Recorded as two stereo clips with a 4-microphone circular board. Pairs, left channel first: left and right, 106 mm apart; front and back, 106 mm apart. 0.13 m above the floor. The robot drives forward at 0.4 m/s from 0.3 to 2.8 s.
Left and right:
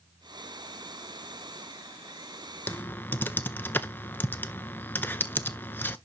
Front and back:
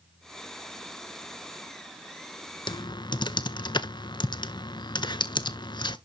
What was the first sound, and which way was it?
Typing on a keyboard, 20° left.